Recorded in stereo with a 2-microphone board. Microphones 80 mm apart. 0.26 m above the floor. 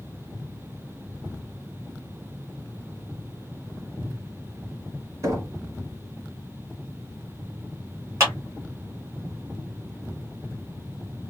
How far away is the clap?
About 2.5 m.